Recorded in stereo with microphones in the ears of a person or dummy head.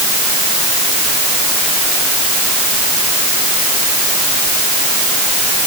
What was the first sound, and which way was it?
Only background noise.